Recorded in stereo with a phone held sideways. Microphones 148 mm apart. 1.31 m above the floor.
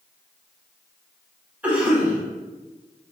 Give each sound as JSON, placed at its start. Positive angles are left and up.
{"t": 1.6, "sound": "a cough", "side_deg": -10, "distance_m": 1.2}